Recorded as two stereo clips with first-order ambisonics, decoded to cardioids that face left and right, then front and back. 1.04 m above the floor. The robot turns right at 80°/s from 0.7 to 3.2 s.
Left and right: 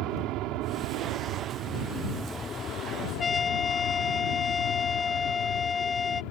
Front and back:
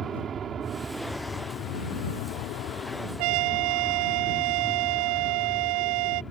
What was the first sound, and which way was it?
An aircraft, 120° right.